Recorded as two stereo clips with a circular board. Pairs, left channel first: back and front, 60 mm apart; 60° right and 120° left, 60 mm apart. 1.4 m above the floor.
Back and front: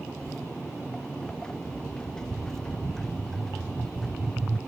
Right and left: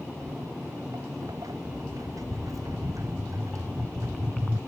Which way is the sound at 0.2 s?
105° left.